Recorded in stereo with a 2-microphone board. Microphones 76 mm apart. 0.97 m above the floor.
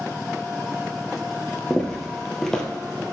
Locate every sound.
1.7 s footsteps: 10° left (ahead or behind), 1.4 m